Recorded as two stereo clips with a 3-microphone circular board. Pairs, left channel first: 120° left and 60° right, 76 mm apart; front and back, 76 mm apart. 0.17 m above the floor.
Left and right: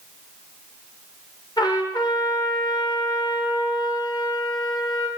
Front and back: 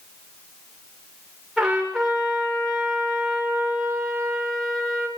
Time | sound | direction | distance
1.6 | a trumpet | 95° left | 9 m